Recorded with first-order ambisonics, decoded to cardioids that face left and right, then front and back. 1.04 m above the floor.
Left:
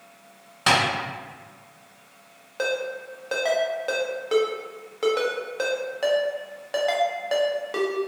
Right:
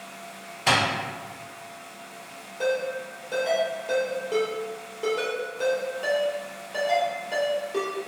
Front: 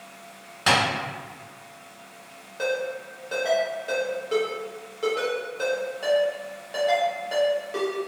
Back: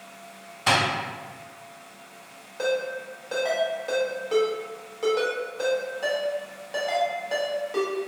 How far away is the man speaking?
I don't hear a man speaking.